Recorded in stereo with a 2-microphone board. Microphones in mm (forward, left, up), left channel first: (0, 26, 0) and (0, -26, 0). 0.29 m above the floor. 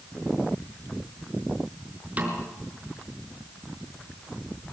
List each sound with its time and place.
2.2 s a snare drum: 30° right (ahead or behind), 5.5 m